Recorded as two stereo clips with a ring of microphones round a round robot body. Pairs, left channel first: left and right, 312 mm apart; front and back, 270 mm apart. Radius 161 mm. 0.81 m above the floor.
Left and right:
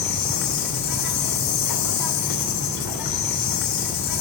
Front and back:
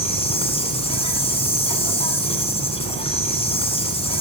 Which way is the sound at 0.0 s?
70° left.